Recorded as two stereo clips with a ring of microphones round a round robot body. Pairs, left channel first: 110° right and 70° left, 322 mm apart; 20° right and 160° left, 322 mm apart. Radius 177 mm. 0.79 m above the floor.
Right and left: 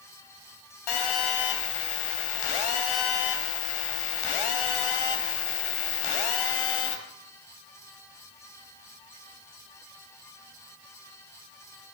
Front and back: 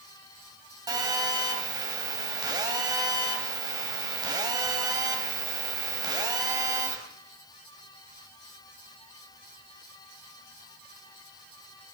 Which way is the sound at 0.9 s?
125° right.